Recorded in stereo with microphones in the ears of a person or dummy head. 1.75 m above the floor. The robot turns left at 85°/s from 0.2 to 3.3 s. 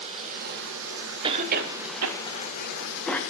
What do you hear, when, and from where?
0.0 s running water: 35° right, 1.5 m; by 3.3 s 65° left, 1.5 m
1.2 s a cough: 25° right (ahead or behind), 0.9 m; by 3.2 s 10° left (ahead or behind), 0.9 m